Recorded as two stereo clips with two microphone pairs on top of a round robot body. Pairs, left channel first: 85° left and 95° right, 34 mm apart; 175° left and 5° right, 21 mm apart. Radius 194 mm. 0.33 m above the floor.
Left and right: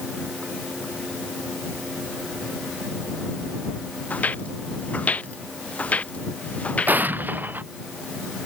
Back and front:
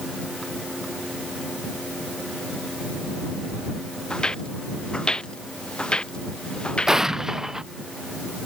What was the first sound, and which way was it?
Footsteps, 125° left.